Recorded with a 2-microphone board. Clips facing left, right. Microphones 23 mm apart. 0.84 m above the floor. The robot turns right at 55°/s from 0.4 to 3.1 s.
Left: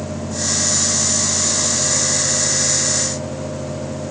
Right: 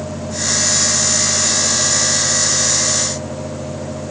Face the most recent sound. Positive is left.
No sound to turn to.